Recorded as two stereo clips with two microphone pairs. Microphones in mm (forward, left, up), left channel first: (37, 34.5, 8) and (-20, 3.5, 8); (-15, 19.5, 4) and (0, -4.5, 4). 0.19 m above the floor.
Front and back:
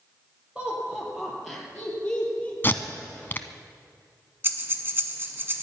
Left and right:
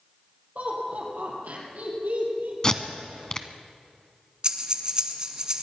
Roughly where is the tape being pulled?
Left.